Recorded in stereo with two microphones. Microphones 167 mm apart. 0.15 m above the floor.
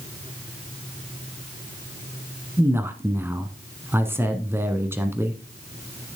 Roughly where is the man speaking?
Centre.